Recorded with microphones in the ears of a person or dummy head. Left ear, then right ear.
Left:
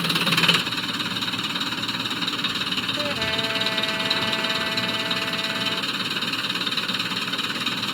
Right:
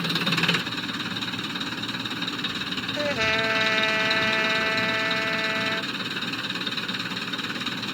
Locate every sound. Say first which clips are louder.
0.0 s an engine running: left 4 dB; 15° left (ahead or behind)
3.0 s a trumpet: right 1 dB; 85° right